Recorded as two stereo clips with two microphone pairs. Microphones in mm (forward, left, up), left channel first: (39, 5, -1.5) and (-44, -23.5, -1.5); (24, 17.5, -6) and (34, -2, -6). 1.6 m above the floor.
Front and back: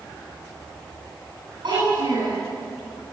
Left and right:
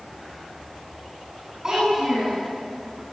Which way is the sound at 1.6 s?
130° right.